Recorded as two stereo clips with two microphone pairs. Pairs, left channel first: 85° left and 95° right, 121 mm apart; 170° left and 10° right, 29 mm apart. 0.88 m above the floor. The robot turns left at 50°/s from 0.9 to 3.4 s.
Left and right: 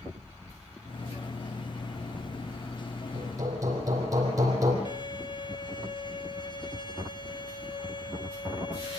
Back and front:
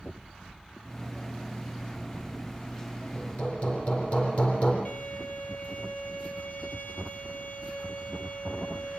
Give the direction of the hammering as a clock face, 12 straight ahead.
5 o'clock.